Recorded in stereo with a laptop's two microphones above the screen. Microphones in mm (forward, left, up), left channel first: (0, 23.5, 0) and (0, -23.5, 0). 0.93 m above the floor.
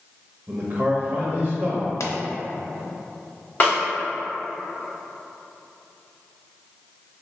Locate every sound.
0.5 s a man speaking: 40° right (ahead or behind), 0.7 m
2.0 s a pop: 70° left (ahead or behind), 0.6 m
3.6 s a snare drum: 35° left (ahead or behind), 1.2 m